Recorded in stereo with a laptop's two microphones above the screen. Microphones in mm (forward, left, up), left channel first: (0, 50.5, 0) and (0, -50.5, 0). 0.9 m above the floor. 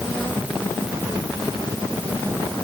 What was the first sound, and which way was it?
Only background noise.